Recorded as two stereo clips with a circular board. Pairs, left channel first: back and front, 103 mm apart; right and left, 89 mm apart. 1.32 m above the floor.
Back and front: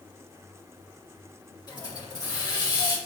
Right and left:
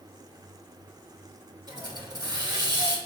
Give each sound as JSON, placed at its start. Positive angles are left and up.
{"t": 1.7, "sound": "a hiss", "azimuth_deg": 130, "distance_m": 2.5}